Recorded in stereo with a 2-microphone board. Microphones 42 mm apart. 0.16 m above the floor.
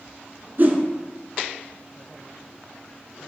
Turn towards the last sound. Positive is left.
turn(degrees=-45)  # may be behind; listen again after turning